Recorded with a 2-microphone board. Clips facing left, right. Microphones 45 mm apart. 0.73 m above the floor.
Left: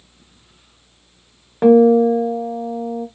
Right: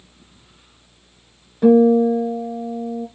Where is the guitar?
55° left (ahead or behind), 0.7 m.